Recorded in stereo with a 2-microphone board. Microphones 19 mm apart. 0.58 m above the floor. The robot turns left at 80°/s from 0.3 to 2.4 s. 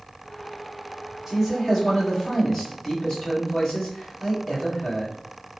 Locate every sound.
1.3 s a man speaking: 150° right, 1.8 m; by 5.2 s 115° left, 1.8 m